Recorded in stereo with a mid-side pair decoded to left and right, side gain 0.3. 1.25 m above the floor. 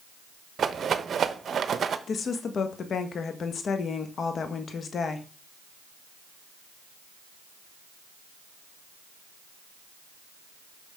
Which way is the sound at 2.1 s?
70° left.